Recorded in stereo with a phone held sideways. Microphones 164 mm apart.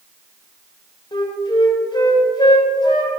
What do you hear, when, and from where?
1.1 s a flute: 25° left (ahead or behind), 0.8 m